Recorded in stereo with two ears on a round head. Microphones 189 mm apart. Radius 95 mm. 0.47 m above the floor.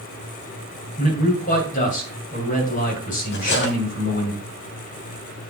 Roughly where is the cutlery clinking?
Left.